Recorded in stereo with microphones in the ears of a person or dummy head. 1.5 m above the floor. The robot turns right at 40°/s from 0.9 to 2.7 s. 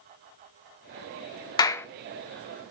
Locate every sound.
1.6 s a clap: 25° left (ahead or behind), 0.6 m; by 1.9 s 15° left (ahead or behind), 0.6 m